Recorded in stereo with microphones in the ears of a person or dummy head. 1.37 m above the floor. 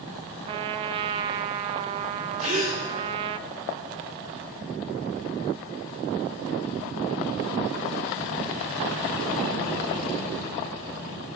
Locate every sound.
0.5 s a trumpet: 30° right (ahead or behind), 0.6 m
2.4 s a gasp: 40° right (ahead or behind), 3.5 m